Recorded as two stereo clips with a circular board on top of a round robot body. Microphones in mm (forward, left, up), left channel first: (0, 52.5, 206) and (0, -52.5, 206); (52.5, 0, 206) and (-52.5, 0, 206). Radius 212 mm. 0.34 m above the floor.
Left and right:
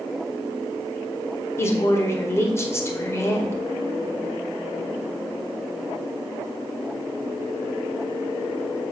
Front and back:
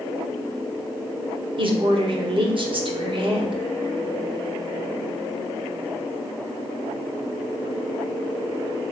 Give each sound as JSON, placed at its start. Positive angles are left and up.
{"t": 1.6, "sound": "a woman speaking", "azimuth_deg": 155, "distance_m": 1.7}